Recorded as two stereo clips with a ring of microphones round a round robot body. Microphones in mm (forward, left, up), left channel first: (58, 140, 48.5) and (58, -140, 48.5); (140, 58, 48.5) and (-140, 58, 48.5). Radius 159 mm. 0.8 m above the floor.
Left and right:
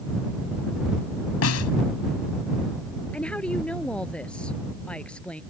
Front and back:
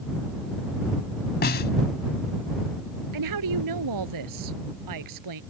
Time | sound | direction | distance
1.4 | a snare drum | 55° left | ?
3.1 | a woman speaking | 175° left | ?